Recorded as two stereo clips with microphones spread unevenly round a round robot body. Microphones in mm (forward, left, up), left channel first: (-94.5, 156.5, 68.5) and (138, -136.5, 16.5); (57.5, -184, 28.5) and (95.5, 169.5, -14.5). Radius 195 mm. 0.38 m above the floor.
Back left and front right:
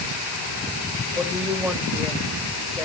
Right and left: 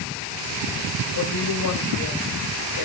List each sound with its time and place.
1.1 s a woman speaking: 135° right, 2 m